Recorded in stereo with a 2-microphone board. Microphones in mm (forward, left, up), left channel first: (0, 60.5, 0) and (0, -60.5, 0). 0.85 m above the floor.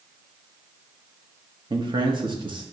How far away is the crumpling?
No crumpling in this recording.